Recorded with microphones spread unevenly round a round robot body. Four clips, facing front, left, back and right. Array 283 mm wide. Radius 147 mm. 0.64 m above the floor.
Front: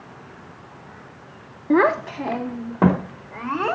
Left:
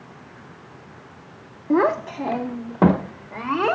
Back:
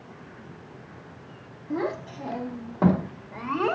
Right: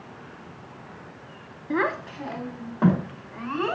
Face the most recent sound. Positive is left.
turn(degrees=65)